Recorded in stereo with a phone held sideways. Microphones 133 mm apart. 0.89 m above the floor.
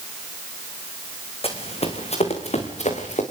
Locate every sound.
1.4 s running footsteps: 45° left (ahead or behind), 4.5 m; by 3.2 s 60° left (ahead or behind), 5.5 m